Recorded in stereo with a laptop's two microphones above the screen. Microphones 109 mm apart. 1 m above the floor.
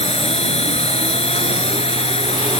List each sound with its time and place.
0.0 s a machine running: 70° left (ahead or behind)